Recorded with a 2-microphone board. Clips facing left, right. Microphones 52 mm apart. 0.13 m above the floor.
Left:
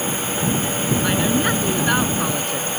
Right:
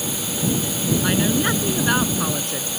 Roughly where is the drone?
Left.